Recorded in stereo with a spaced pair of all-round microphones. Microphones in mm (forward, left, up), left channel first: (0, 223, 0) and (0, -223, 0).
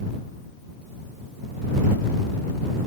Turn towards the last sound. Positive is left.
No sound to turn to.